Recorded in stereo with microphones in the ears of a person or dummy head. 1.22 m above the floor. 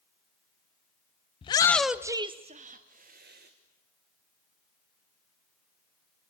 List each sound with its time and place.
1.4 s a shout: 30° left (ahead or behind), 0.6 m; by 3.5 s 50° right (ahead or behind), 1.5 m